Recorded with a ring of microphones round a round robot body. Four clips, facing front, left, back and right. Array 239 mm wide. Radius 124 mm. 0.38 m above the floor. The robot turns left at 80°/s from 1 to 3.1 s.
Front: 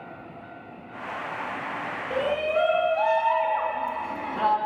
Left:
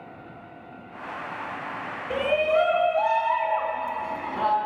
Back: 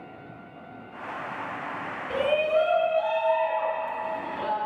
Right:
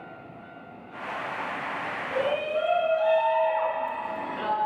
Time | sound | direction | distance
2.1 | a shout | 125° left | 3 m